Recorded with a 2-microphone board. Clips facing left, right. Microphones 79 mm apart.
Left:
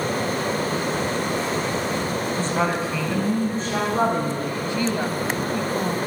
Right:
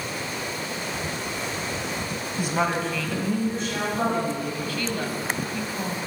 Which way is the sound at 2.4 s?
15° right (ahead or behind).